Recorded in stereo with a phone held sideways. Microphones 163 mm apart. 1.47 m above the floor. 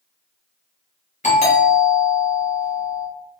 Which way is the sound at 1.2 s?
45° left (ahead or behind).